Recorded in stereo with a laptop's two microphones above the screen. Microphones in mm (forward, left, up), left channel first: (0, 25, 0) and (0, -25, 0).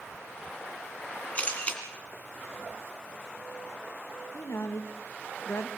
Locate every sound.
1.4 s a camera shutter: 30° left (ahead or behind), 2.5 m
4.3 s a woman speaking: 60° left (ahead or behind), 1.4 m